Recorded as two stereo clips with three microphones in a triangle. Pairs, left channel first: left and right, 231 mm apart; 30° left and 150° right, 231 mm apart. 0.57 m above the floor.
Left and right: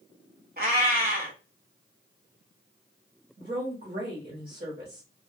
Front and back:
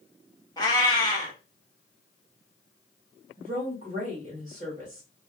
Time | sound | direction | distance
0.6 | a cat meowing | 45° right | 1.1 m
3.4 | a woman speaking | 100° right | 1.3 m